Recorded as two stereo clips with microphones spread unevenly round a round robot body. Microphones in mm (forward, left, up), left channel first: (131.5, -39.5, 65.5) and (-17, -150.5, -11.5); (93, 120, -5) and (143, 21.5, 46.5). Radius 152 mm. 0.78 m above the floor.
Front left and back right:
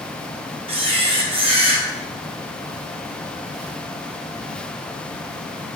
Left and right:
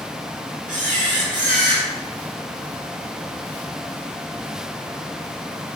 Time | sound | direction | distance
0.7 | a camera shutter | 85° right | 3.5 m